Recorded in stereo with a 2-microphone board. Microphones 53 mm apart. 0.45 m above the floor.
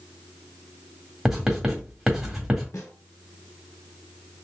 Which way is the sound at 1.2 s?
5° right (ahead or behind).